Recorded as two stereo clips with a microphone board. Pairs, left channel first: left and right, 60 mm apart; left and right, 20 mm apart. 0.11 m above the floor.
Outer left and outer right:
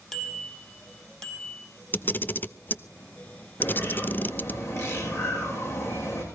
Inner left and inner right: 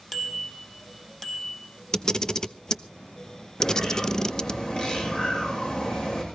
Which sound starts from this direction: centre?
A bicycle bell, at 0.1 s.